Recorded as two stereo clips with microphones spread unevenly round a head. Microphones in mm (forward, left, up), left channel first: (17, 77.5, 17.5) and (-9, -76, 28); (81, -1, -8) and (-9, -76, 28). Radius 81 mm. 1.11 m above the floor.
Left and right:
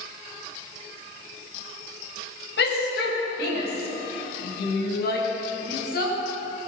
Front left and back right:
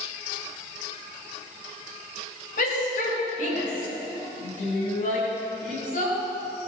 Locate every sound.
2.6 s a shout: 65° left, 6 m; by 6.2 s 50° left, 9.5 m